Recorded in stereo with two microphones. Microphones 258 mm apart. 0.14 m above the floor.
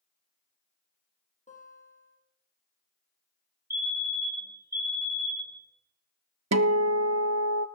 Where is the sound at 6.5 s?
75° right (ahead or behind), 0.6 m.